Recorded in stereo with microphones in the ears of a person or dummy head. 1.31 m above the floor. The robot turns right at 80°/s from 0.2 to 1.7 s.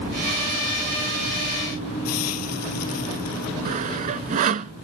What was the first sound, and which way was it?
A hiss, 85° left.